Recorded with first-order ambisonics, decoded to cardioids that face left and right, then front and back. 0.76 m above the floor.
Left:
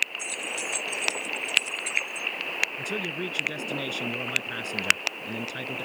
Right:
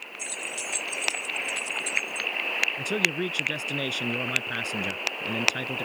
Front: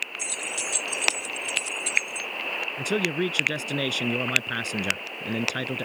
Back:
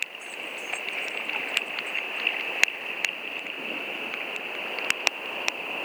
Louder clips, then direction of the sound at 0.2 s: Left 2 dB, front 4 dB; 5° right.